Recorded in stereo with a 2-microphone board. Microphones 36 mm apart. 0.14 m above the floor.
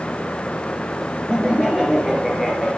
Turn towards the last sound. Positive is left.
turn(degrees=-10)  # may be behind; listen again after turning